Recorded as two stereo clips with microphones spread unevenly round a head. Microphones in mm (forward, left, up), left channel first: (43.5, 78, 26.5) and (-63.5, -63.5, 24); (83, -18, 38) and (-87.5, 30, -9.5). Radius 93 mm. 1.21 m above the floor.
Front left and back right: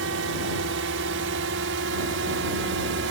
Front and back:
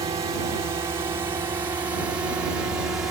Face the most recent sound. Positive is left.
turn(degrees=-115)